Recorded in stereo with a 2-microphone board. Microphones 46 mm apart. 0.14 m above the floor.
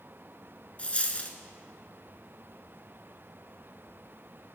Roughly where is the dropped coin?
Left.